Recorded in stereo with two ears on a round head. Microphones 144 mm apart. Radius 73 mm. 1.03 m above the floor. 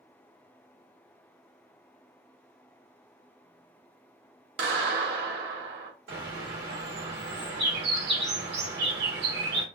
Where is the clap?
70° right (ahead or behind), 1.3 m.